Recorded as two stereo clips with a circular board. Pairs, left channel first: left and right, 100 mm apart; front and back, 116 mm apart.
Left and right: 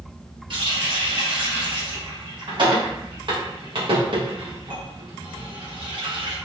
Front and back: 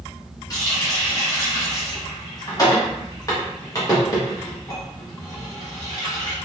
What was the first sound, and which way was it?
A running tap, 55° right.